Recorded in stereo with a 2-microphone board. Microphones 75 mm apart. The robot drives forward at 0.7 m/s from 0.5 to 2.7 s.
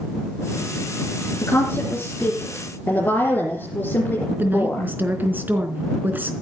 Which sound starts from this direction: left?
A woman speaking, at 1.4 s.